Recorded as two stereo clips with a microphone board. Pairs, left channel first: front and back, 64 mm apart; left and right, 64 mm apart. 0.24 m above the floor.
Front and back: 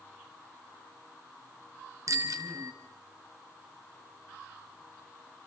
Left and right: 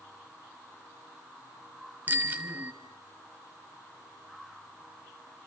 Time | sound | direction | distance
2.1 | a bicycle bell | 150° right | 2.5 m